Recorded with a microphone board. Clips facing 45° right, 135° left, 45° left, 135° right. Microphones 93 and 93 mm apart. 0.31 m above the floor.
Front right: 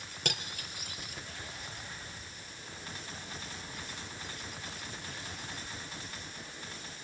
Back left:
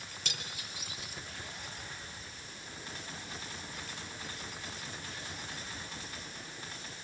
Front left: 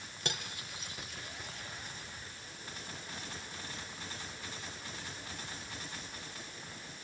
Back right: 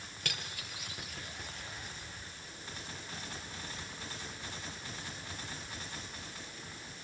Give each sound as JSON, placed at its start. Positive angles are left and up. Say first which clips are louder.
{"t": 0.2, "sound": "cutlery clinking", "louder": "front right 7 dB, front left 3 dB", "azimuth_deg": -20, "distance_m": 3.5}